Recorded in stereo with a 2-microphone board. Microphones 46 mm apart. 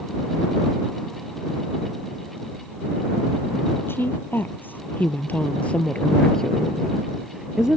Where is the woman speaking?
55° left (ahead or behind); by 7.8 s 20° right (ahead or behind).